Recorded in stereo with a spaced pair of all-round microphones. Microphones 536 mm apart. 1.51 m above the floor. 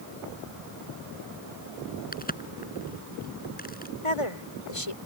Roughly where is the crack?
Centre.